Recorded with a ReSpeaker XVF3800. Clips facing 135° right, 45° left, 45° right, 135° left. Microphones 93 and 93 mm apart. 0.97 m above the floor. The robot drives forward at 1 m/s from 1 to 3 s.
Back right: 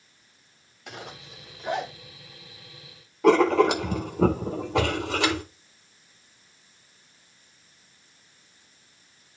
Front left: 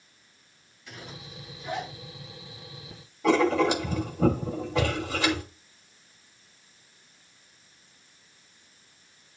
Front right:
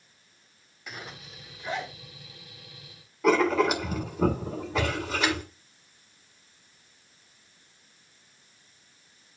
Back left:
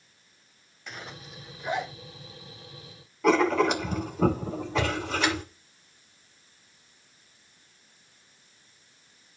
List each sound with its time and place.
0.9 s a zipper: 130° right, 1.3 m; by 1.9 s 150° right, 2.0 m
3.2 s writing: 130° right, 1.7 m